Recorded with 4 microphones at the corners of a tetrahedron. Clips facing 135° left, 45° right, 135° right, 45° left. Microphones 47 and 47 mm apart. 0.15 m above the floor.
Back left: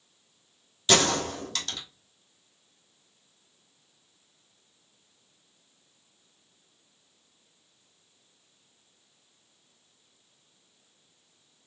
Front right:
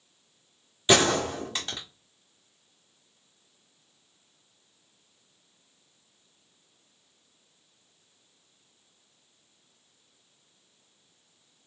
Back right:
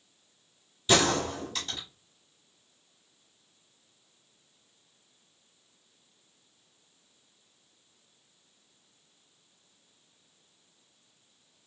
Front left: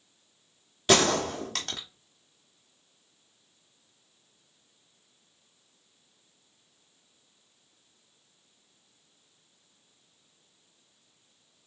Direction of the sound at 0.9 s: 25° left.